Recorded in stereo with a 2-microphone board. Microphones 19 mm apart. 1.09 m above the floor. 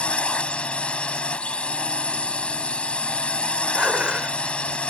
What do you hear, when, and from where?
0.0 s a drone: 80° left
3.8 s dishes clattering: 65° right (ahead or behind)